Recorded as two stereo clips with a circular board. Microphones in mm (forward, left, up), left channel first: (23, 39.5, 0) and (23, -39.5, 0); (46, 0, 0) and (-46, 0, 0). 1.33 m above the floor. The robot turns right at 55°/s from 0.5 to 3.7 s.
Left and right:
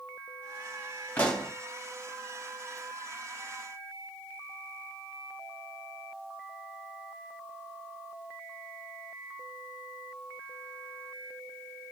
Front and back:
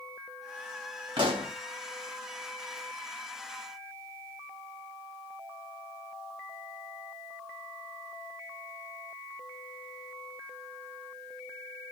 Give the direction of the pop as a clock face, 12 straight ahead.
7 o'clock.